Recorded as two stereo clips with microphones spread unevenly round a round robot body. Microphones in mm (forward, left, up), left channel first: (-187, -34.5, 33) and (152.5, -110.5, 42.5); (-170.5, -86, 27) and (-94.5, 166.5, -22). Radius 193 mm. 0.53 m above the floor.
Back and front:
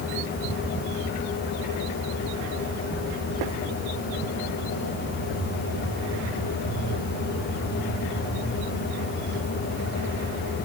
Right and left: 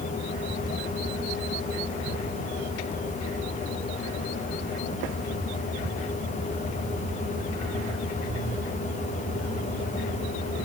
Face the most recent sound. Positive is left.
No sound to turn to.